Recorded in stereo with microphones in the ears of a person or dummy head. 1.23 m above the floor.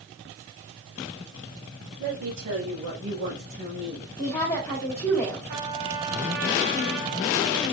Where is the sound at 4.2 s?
15° left (ahead or behind), 1.6 m.